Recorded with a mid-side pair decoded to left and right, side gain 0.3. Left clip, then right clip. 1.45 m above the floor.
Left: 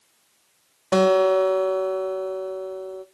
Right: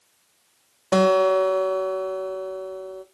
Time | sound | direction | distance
0.9 | a guitar | 10° right | 0.9 m